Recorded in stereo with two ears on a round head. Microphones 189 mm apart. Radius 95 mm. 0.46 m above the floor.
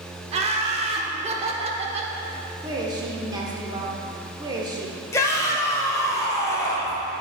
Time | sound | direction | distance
0.3 | laughter | 30° right (ahead or behind) | 0.9 m
2.6 | a woman speaking | 20° right (ahead or behind) | 1.0 m
5.1 | a shout | 15° left (ahead or behind) | 1.3 m